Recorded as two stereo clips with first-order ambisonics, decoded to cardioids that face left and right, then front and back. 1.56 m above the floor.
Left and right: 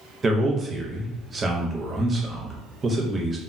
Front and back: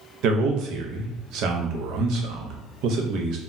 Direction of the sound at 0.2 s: 160° right.